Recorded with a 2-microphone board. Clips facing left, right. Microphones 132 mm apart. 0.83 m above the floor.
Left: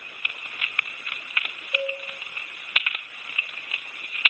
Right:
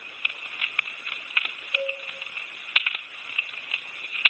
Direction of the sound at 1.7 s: 50° left (ahead or behind).